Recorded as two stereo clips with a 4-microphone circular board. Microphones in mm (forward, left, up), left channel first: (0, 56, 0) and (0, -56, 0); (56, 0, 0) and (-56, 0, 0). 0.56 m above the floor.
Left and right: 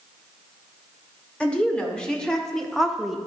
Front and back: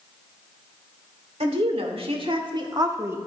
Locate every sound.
1.4 s a woman speaking: 170° left, 1.6 m; by 3.2 s 175° right, 0.8 m